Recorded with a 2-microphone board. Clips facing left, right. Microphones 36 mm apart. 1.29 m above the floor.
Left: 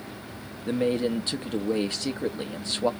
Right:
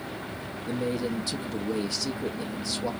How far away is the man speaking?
About 1.3 m.